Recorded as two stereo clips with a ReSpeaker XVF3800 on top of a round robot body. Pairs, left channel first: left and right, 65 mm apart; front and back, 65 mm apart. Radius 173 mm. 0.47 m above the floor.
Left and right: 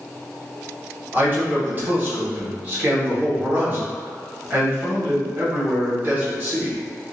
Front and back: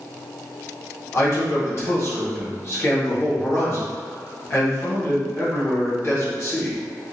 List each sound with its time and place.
1.1 s a man speaking: 40° right, 1.9 m